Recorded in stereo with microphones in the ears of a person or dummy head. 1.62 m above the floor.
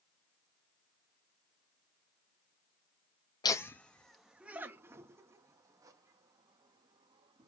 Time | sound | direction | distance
3.4 | laughter | 20° left (ahead or behind) | 0.6 m